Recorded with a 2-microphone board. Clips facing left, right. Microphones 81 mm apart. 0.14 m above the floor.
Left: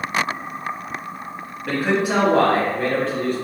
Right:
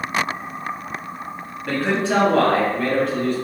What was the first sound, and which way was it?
A man speaking, 5° left (ahead or behind).